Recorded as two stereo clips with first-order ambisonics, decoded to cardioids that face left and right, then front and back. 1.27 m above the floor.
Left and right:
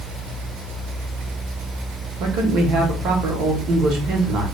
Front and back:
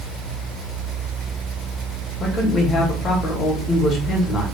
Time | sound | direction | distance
2.2 | a man speaking | 60° right | 1.2 m